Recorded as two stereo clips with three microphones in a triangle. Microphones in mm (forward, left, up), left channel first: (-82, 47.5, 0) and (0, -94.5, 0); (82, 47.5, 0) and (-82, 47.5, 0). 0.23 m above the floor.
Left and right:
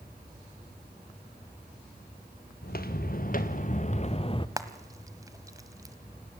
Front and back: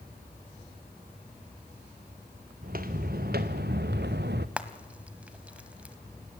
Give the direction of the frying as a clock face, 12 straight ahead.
4 o'clock.